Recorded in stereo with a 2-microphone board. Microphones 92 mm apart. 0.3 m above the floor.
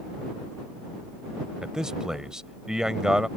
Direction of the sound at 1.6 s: 10° right (ahead or behind).